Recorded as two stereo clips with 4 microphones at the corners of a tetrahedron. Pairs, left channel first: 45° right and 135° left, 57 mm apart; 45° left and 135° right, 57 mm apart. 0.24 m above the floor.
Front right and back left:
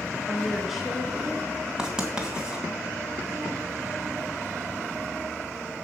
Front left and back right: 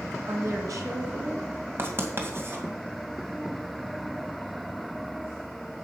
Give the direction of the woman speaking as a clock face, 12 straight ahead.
4 o'clock.